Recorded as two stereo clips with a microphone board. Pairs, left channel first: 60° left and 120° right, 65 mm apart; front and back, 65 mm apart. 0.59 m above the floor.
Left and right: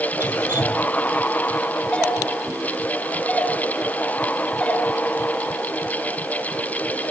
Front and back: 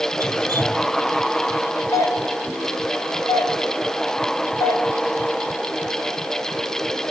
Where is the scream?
I don't hear a scream.